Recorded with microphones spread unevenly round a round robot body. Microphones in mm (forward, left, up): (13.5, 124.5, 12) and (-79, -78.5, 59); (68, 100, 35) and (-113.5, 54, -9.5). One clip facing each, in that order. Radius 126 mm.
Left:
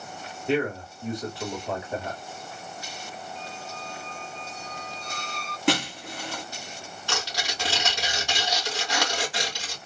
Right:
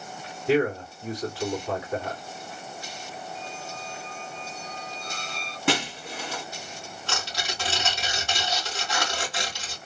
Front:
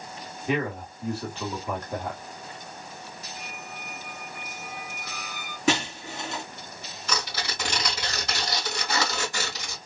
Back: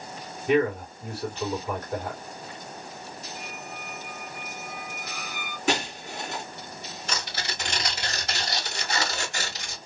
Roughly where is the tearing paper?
Ahead.